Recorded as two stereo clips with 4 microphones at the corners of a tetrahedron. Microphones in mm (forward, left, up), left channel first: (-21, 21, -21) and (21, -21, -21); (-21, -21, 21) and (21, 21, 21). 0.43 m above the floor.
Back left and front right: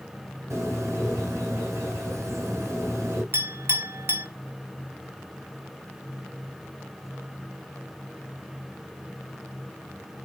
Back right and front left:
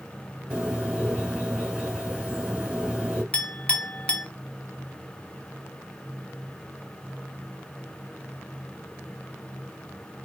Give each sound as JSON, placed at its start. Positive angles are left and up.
{"t": 0.5, "sound": "a bird", "azimuth_deg": -15, "distance_m": 2.0}
{"t": 3.3, "sound": "a clink", "azimuth_deg": -65, "distance_m": 0.8}